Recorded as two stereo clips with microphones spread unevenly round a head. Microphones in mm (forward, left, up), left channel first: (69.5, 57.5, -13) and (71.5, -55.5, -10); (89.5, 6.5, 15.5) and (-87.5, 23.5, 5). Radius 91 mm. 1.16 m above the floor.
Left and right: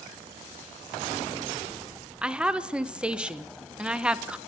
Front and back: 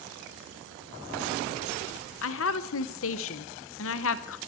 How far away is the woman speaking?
About 0.7 m.